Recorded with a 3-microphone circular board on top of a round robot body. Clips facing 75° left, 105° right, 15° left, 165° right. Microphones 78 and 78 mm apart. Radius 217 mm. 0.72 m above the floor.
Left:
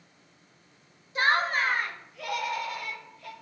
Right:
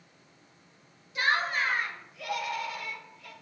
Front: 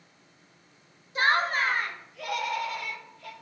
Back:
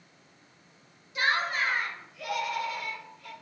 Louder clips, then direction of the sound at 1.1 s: Left 3 dB, front 3 dB; 45° left.